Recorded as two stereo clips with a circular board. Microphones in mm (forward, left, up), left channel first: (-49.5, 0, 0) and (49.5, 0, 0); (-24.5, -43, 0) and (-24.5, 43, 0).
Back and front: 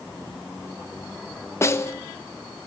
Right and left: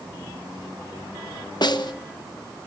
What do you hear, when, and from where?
1.6 s a snare drum: 120° right, 1.1 m